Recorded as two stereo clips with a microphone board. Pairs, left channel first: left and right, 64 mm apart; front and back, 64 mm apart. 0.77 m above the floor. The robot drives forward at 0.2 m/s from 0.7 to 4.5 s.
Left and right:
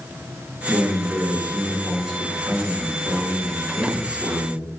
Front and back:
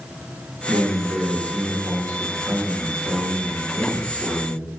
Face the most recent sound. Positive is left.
turn(degrees=-175)